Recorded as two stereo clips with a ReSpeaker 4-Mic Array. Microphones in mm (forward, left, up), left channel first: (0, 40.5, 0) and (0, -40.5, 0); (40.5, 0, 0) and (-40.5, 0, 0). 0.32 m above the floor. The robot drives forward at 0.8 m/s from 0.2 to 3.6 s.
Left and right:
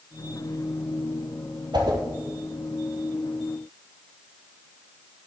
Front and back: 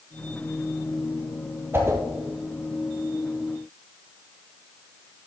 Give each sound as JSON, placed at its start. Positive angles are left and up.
{"t": 1.7, "sound": "a whoosh", "azimuth_deg": -120, "distance_m": 2.0}